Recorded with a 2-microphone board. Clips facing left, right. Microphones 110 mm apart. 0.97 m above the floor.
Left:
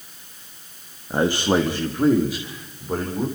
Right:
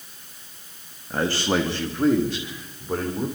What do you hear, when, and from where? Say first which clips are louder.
1.1 s a man speaking: left 4 dB; 20° left (ahead or behind), 1.7 m; by 3.3 s centre (ahead or behind), 4 m